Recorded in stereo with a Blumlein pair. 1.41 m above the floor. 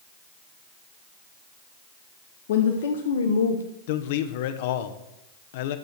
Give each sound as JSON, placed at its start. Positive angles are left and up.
{"t": 2.5, "sound": "a woman speaking", "azimuth_deg": 60, "distance_m": 1.8}
{"t": 3.9, "sound": "a man speaking", "azimuth_deg": 50, "distance_m": 1.1}